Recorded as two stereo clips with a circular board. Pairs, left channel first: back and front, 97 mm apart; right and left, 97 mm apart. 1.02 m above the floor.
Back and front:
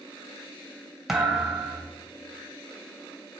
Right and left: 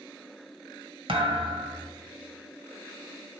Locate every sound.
1.1 s a thud: 85° left, 1.6 m